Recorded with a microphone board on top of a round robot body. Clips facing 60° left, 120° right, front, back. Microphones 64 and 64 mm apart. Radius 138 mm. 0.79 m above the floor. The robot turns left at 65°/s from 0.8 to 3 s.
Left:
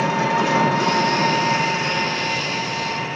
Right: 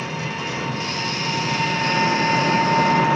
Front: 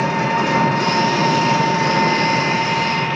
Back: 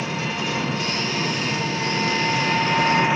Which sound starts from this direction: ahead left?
An engine running, at 0.0 s.